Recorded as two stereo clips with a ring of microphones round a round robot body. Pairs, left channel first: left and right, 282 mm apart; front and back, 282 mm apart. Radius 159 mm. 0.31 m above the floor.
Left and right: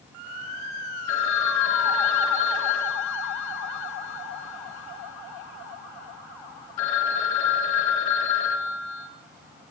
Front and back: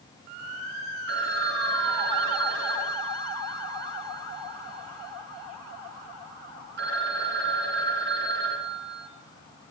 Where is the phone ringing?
125° left, 3 m.